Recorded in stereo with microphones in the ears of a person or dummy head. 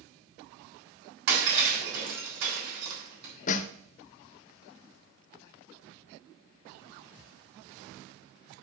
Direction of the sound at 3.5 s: 40° left (ahead or behind).